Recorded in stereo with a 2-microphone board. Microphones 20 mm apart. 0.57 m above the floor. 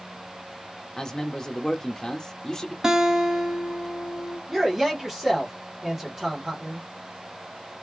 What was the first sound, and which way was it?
A man speaking, 30° left (ahead or behind).